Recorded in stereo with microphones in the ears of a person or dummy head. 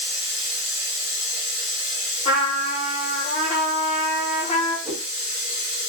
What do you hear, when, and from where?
0.0 s running water: 40° left (ahead or behind), 1.0 m
2.2 s a trumpet: 35° left (ahead or behind), 0.9 m
4.8 s a whoosh: 15° right (ahead or behind), 0.9 m